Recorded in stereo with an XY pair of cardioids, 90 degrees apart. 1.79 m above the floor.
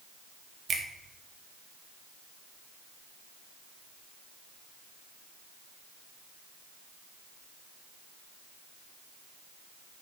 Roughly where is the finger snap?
Ahead right.